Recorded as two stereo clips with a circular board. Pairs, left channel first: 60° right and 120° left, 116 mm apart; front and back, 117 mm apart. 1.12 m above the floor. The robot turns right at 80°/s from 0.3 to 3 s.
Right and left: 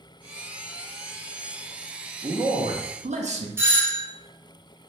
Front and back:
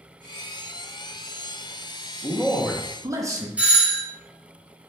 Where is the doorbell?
125° left, 0.5 m.